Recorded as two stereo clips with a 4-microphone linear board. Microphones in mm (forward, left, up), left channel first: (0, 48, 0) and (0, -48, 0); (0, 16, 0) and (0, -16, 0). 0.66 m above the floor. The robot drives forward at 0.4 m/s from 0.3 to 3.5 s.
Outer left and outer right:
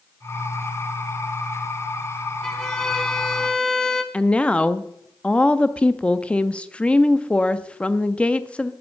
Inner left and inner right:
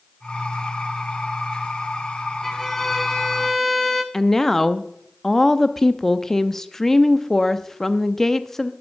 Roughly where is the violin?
Centre.